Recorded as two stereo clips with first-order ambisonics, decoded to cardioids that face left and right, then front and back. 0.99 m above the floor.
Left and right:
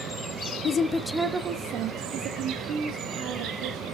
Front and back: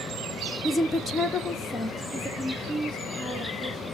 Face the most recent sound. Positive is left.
turn(degrees=-75)